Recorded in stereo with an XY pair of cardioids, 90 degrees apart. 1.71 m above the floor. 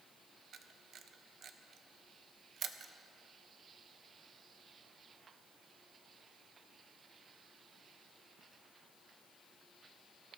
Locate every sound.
0.5 s a camera shutter: 65° right, 1.0 m